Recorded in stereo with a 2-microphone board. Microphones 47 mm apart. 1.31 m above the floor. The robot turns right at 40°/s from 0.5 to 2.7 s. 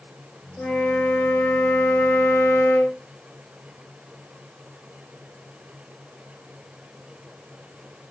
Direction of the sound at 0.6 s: 30° left.